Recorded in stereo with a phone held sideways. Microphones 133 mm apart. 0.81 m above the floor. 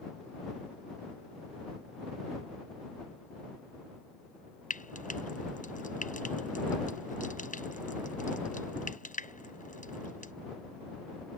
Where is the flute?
I don't hear a flute.